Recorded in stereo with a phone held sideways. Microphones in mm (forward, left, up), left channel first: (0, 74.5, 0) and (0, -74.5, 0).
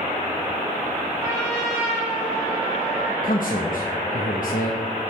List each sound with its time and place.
1.2 s a trumpet: 5° right (ahead or behind), 5.5 m
3.2 s a man speaking: 65° left (ahead or behind), 1.1 m